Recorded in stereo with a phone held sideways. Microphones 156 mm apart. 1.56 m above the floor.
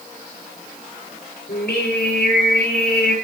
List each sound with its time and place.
1.5 s singing: 90° left, 6.5 m